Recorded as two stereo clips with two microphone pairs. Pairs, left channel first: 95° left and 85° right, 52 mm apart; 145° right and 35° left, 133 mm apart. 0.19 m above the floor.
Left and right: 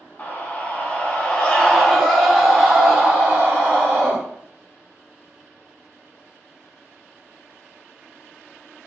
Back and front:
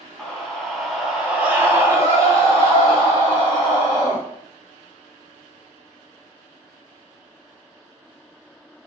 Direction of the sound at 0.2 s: 135° left.